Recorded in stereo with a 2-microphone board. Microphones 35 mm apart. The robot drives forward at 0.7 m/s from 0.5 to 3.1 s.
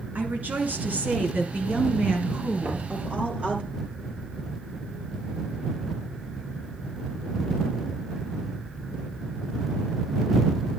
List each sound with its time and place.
0.1 s a woman speaking: 55° right (ahead or behind), 2.5 m; by 3.6 s 40° right (ahead or behind), 3.5 m
2.6 s knocking: 65° right (ahead or behind), 3.5 m